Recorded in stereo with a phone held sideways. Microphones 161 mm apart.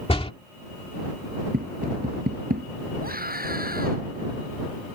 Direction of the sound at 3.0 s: 65° right (ahead or behind).